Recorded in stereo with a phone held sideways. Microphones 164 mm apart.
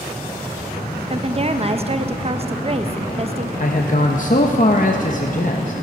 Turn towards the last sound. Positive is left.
turn(degrees=50)  # may be behind; listen again after turning